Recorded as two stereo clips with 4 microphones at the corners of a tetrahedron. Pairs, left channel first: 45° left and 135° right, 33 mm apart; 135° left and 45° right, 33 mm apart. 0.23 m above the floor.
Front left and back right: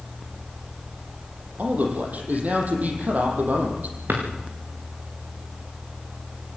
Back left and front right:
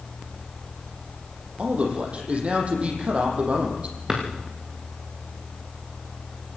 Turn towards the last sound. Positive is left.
turn(degrees=-115)